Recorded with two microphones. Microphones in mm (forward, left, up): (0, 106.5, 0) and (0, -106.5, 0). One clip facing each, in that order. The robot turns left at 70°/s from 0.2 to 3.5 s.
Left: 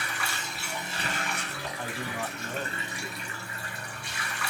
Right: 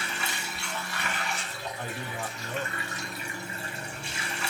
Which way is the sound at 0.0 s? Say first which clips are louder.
Right 1 dB; 155° right.